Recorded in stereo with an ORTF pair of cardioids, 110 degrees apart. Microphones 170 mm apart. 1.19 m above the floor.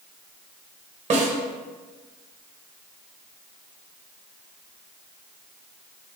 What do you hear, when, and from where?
1.1 s a snare drum: 40° right, 1.1 m